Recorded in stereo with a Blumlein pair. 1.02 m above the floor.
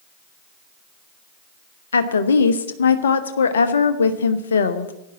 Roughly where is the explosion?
No explosion in this recording.